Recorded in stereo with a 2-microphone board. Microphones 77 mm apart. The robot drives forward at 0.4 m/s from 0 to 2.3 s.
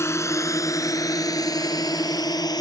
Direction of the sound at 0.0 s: 35° left (ahead or behind).